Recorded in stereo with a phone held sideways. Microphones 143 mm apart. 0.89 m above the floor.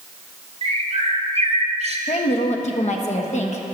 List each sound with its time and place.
0.6 s a bird: 45° right (ahead or behind), 1.0 m
2.1 s a woman speaking: 55° left (ahead or behind), 1.1 m